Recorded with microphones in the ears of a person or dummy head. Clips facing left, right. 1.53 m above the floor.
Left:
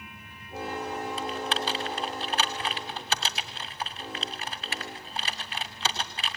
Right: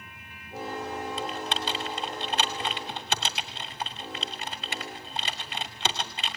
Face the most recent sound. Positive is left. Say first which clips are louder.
# left 1 dB
turn(degrees=-30)  # may be behind; listen again after turning